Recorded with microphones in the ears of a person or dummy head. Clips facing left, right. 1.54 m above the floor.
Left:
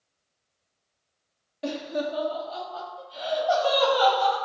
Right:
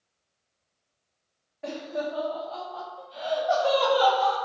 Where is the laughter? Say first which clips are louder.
Left 2 dB; 50° left (ahead or behind), 0.6 m; by 4.4 s 5° right (ahead or behind), 1.6 m.